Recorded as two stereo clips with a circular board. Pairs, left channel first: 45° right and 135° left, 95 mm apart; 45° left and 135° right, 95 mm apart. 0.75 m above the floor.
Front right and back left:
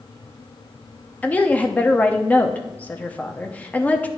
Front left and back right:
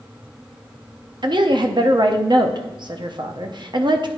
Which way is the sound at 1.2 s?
115° right.